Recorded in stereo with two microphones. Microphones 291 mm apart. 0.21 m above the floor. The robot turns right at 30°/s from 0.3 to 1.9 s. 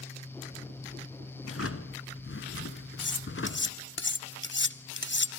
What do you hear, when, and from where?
1.4 s a drawer: 55° left (ahead or behind), 1.3 m; by 3.8 s 45° left (ahead or behind), 1.3 m
3.0 s cutlery clinking: 40° left (ahead or behind), 0.7 m